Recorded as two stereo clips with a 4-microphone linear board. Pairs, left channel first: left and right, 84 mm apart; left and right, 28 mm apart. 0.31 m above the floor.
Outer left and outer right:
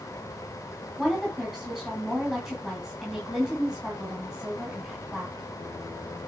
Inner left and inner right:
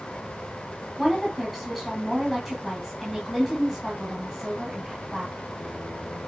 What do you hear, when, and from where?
1.0 s a woman speaking: 5° right (ahead or behind), 3.5 m